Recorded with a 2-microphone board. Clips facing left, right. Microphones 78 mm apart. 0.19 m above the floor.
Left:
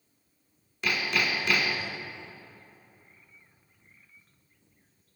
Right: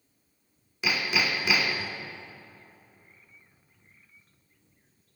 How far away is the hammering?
About 0.9 m.